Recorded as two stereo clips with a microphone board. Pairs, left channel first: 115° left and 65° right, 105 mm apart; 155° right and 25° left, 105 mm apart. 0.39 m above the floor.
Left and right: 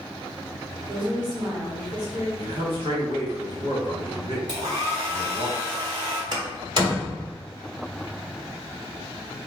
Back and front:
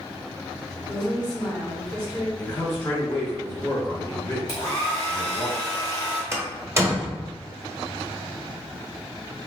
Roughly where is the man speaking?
Right.